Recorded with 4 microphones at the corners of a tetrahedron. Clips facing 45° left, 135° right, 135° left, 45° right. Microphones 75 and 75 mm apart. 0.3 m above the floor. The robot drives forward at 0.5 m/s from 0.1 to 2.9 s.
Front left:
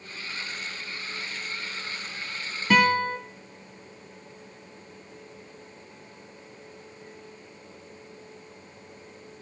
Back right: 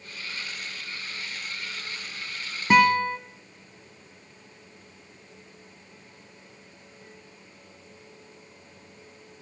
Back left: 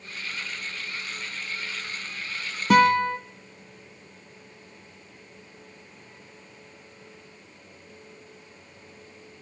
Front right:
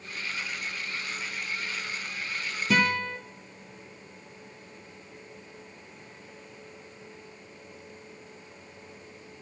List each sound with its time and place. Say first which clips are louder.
2.7 s a guitar: back right 2 dB, back left 8 dB; 160° left, 1.0 m